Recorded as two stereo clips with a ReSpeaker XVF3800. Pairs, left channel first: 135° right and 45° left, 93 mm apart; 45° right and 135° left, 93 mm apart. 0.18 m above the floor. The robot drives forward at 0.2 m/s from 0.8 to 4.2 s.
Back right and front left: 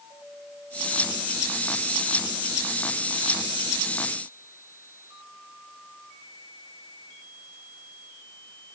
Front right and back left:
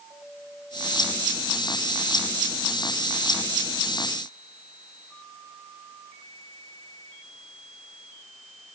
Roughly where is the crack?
No crack in this recording.